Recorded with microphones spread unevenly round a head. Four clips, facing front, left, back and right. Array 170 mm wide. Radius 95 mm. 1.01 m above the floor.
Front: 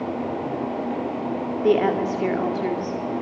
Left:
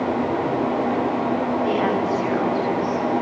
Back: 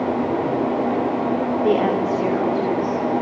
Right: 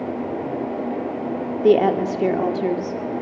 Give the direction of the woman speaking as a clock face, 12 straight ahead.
3 o'clock.